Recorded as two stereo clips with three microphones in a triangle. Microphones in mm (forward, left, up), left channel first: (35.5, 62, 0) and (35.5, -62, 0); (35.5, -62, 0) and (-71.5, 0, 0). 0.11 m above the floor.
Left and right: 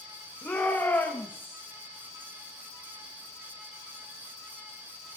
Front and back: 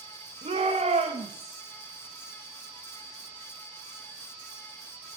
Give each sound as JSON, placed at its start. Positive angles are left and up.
{"t": 0.4, "sound": "a shout", "azimuth_deg": 170, "distance_m": 7.0}